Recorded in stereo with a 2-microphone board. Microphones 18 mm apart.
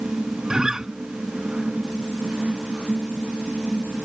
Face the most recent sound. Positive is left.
turn(degrees=-35)  # may be behind; listen again after turning